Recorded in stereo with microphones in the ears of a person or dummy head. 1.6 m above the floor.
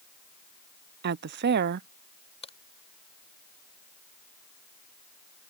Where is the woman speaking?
50° right (ahead or behind).